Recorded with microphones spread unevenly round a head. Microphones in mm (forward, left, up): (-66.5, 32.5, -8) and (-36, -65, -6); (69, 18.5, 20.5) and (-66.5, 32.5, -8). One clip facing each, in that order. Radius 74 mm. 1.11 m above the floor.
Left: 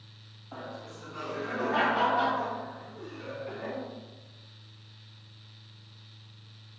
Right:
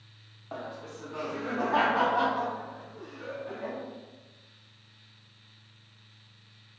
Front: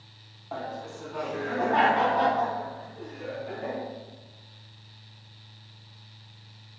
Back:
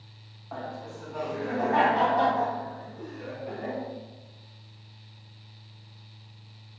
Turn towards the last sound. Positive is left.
turn(degrees=-145)